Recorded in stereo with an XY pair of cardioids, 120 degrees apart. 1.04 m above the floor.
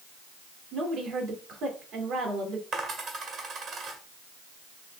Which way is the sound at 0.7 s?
70° right.